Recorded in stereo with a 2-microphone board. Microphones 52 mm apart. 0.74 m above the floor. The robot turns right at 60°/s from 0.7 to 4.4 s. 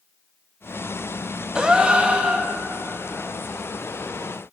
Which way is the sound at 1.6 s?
15° right (ahead or behind).